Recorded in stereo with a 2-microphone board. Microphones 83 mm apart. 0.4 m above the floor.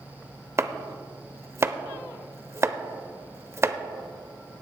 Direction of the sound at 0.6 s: 35° right (ahead or behind).